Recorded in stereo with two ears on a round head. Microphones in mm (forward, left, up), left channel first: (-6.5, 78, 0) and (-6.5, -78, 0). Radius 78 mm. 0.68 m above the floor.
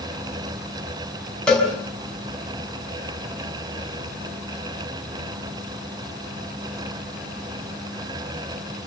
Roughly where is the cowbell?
Centre.